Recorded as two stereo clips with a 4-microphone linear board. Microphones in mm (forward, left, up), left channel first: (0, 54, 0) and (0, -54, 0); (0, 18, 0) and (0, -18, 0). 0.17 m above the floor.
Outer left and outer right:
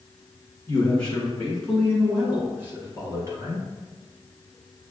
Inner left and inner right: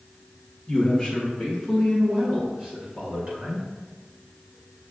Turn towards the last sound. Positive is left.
turn(degrees=-35)  # may be behind; listen again after turning